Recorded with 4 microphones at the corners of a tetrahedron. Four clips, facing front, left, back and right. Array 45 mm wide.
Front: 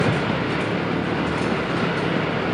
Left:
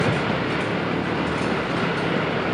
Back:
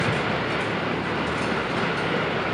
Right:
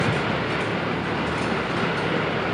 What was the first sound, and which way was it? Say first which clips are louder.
An engine running: left 1 dB, front 2 dB; 45° left.